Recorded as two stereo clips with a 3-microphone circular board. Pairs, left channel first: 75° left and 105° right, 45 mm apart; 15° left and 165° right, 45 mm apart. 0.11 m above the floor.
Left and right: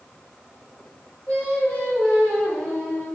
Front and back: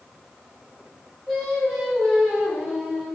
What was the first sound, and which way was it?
Singing, 85° left.